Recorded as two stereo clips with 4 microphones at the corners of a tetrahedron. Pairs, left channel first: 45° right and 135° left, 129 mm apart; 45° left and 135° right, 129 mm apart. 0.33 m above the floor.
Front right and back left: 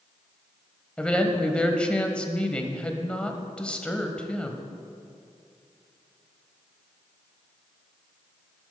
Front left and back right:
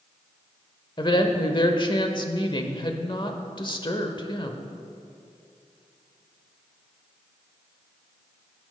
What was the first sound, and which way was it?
A woman speaking, 30° left.